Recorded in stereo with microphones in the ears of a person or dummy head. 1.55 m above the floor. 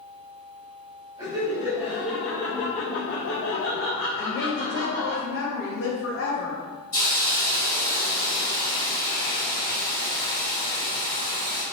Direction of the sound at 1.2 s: 25° right (ahead or behind).